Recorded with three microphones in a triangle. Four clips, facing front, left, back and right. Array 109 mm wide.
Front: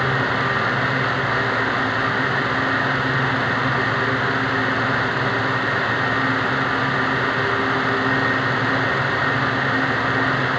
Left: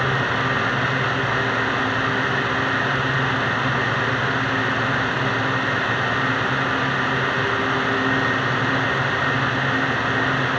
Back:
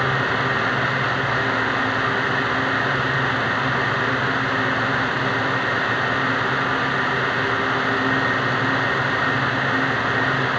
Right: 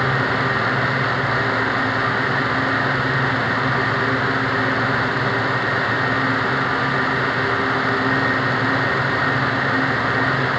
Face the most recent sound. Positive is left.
No sound to turn to.